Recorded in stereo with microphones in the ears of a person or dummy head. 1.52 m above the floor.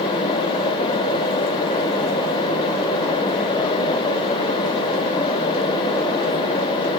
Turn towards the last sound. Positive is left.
No sound to turn to.